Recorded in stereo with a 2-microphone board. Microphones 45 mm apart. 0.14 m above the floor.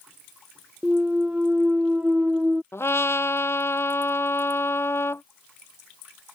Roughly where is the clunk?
Right.